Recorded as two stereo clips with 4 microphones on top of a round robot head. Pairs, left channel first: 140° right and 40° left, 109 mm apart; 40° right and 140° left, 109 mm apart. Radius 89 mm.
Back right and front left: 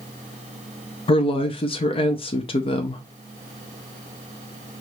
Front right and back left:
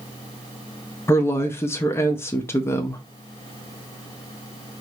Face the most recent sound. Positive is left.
turn(degrees=-105)